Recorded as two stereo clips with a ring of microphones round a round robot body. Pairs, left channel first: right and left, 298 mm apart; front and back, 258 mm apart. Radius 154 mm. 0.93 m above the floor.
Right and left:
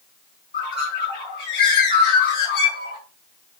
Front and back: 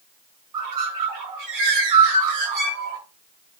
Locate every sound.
0.5 s a bird: 150° right, 6 m